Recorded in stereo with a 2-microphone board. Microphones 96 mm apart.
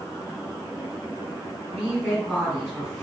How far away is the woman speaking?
About 2.0 m.